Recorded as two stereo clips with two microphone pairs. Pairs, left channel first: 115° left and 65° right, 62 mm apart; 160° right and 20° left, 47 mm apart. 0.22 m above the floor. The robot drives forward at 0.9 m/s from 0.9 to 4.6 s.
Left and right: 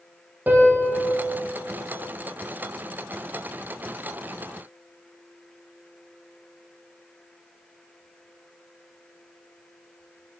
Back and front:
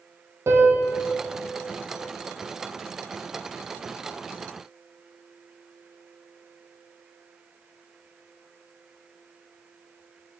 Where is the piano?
10° right, 2.5 m.